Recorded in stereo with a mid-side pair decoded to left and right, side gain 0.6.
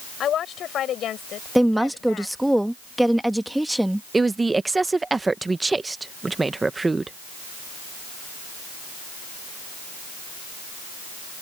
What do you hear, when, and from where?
0.2 s a woman speaking: 50° left; by 2.4 s 55° left
1.6 s a woman speaking: 5° right
4.1 s a woman speaking: 15° right